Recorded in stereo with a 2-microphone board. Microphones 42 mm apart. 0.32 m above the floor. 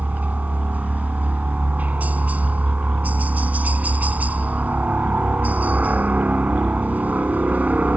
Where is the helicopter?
40° right (ahead or behind).